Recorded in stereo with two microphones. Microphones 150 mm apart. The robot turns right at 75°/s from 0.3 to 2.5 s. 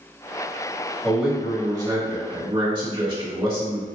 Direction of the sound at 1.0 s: 175° left.